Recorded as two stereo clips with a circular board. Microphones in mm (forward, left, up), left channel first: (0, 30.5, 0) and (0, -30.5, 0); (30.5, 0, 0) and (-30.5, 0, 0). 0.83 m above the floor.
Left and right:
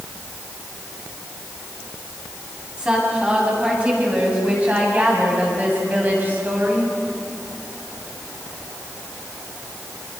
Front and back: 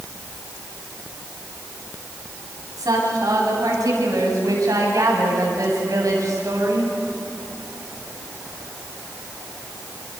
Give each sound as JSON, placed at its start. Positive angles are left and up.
{"t": 2.8, "sound": "a woman speaking", "azimuth_deg": -165, "distance_m": 8.0}